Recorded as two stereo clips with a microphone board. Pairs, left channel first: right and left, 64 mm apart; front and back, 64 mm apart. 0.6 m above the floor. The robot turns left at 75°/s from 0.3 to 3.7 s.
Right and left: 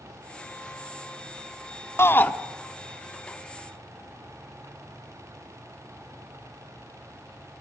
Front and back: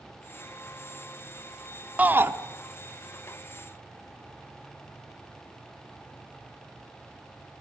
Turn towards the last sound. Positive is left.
turn(degrees=110)